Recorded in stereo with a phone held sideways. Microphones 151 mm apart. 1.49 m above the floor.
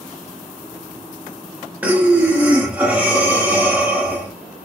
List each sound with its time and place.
1.8 s breathing: 10° right (ahead or behind), 0.7 m